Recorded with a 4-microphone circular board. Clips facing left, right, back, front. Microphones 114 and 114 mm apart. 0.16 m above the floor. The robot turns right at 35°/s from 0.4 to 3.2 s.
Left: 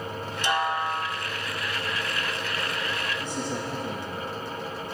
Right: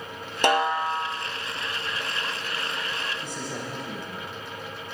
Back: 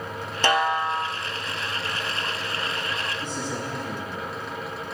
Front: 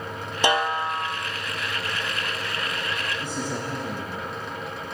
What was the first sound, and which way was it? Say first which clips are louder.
A snare drum: right 4 dB, back 1 dB; 75° right.